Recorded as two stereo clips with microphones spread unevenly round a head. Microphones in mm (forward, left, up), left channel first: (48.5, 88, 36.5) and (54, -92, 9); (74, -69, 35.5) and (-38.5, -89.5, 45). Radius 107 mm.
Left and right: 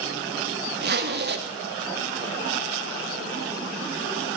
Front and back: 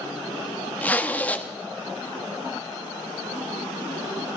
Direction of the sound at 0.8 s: 65° right.